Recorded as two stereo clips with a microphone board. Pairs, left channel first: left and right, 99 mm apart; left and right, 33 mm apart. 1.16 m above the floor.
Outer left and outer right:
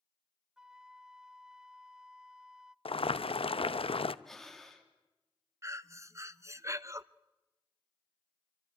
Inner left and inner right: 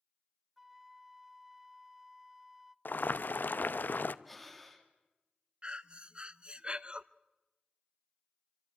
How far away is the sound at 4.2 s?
About 3 m.